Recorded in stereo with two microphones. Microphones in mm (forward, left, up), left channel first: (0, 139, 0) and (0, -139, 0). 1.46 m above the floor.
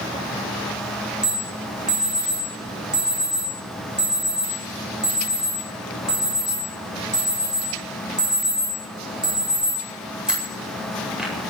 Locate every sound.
1.2 s an alarm: 5° right (ahead or behind), 8.5 m